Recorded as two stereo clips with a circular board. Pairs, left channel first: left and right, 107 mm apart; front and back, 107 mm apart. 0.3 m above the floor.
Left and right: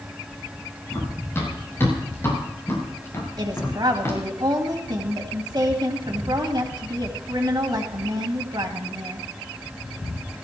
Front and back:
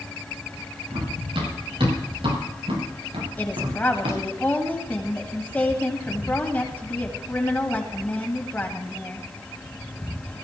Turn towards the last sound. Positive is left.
turn(degrees=-70)